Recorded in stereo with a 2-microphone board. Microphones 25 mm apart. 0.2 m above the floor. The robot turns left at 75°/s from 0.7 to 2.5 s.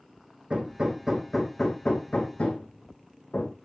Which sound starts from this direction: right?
Hammering, at 0.5 s.